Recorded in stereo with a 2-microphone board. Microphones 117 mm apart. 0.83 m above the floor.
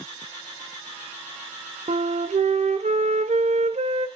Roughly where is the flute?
Right.